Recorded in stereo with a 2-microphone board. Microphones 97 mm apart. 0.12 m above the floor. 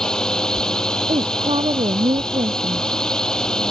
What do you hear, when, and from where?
0.0 s a drone: 5° left (ahead or behind)
1.1 s a woman speaking: 70° right (ahead or behind)